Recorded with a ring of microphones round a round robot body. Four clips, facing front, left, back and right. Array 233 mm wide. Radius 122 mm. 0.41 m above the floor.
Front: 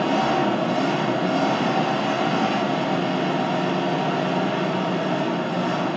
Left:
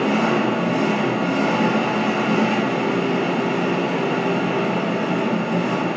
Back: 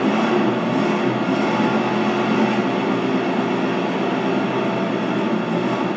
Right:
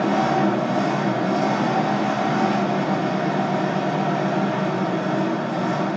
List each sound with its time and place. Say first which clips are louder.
0.0 s an engine running: even, back 3 dB; 125° left, 9 m